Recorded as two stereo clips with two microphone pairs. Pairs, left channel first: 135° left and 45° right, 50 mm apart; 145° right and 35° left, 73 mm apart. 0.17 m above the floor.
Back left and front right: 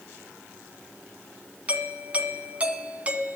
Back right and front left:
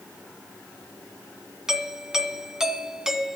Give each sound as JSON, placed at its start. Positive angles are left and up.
{"t": 1.7, "sound": "a doorbell", "azimuth_deg": -40, "distance_m": 1.6}